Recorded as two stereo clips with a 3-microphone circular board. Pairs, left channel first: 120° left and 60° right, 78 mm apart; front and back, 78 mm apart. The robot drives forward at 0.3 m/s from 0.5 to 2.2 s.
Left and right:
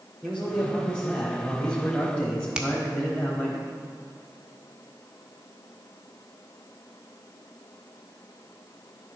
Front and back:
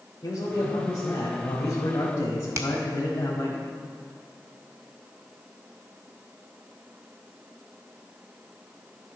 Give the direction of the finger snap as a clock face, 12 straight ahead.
5 o'clock.